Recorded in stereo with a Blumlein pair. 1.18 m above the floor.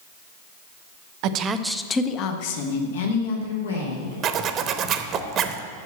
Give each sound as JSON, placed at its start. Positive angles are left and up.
{"t": 1.2, "sound": "a woman speaking", "azimuth_deg": -40, "distance_m": 0.9}
{"t": 4.2, "sound": "a zipper", "azimuth_deg": -30, "distance_m": 0.9}